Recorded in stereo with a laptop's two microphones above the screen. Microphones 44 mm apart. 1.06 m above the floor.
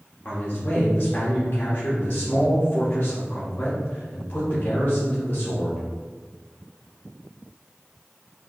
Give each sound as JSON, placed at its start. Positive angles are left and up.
{"t": 0.2, "sound": "a man speaking", "side_deg": 50, "distance_m": 1.0}